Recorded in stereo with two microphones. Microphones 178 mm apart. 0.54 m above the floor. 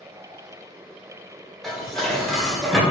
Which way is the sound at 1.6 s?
Centre (ahead or behind).